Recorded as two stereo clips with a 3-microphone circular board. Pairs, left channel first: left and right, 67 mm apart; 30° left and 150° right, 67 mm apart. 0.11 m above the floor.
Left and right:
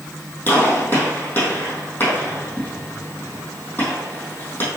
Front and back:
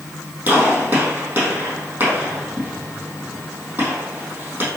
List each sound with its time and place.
0.5 s a gunshot: 150° left, 3.5 m